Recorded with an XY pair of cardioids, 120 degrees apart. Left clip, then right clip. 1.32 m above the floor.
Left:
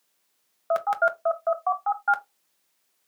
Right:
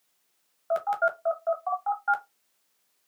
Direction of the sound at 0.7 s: 30° left.